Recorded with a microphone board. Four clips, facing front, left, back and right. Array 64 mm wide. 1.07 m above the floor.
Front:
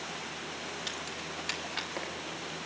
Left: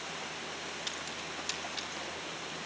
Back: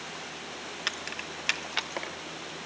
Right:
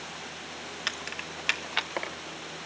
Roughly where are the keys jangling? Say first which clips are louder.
Right 4 dB, back 3 dB; behind right.